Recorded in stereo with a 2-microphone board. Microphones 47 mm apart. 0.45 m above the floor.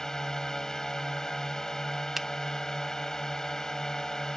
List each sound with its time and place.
0.0 s a drone: 10° left (ahead or behind)
2.2 s a finger snap: 5° right (ahead or behind)